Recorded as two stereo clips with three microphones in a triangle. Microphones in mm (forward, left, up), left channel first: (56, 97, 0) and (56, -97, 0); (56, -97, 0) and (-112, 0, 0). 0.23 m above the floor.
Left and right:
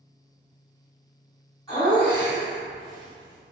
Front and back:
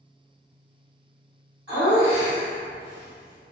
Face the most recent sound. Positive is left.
turn(degrees=-135)